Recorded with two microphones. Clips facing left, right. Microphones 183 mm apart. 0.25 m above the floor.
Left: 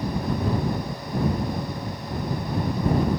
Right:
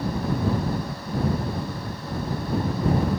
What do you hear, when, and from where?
Only background noise.